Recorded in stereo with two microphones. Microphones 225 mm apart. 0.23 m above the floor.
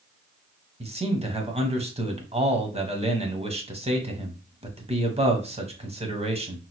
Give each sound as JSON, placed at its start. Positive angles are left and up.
{"t": 0.8, "sound": "a man speaking", "side_deg": -25, "distance_m": 1.1}